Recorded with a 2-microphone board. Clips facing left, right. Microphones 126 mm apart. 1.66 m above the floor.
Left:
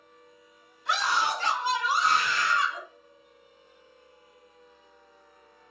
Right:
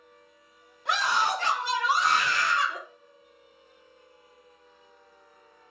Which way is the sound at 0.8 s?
60° right (ahead or behind).